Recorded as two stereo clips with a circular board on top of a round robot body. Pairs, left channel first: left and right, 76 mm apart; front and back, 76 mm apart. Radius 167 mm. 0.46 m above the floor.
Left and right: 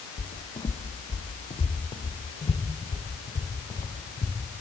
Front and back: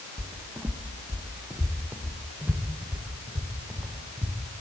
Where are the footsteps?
110° left, 1.9 m.